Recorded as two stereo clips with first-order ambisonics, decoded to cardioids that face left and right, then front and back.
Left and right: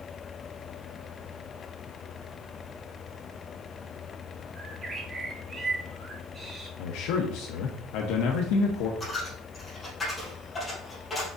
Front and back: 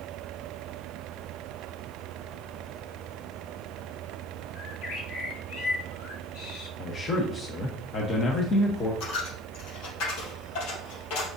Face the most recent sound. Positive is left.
turn(degrees=10)